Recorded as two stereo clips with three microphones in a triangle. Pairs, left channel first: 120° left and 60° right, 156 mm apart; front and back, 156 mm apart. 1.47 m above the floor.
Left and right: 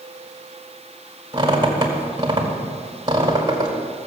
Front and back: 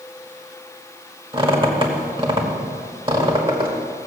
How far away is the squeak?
About 2 m.